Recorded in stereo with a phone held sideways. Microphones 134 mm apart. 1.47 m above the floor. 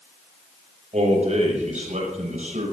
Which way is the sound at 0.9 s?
60° right (ahead or behind).